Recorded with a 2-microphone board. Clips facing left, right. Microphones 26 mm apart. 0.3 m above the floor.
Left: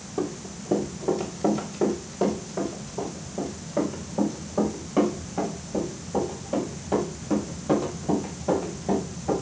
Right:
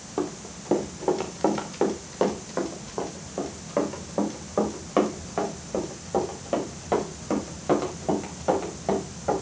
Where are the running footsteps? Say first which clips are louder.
Even; 35° right (ahead or behind), 3 m; by 9.3 s 40° right (ahead or behind), 8.5 m.